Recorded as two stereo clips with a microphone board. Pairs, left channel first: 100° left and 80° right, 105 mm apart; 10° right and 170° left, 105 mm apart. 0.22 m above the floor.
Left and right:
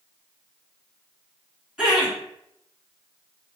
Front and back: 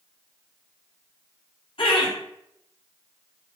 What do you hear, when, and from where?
1.8 s laughter: 5° left, 1.8 m